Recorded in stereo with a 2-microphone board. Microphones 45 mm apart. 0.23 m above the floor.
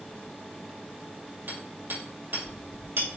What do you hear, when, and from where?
1.5 s hammering: 55° right (ahead or behind), 3.5 m